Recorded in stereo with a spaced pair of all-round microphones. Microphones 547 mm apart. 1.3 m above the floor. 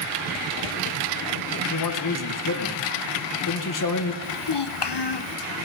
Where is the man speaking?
35° left (ahead or behind), 1.0 m.